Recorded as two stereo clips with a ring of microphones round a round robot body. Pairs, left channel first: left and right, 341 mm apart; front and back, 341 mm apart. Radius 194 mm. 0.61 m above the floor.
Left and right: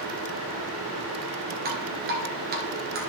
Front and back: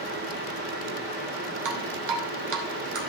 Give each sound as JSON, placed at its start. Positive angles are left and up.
{"t": 1.6, "sound": "dripping", "azimuth_deg": -150, "distance_m": 1.6}